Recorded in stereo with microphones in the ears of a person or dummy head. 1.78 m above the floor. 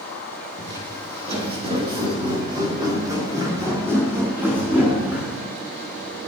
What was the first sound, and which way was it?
Footsteps, 45° right (ahead or behind).